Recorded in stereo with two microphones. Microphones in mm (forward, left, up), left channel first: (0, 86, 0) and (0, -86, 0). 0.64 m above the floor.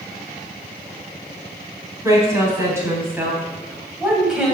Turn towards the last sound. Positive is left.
turn(degrees=0)  # may be behind; listen again after turning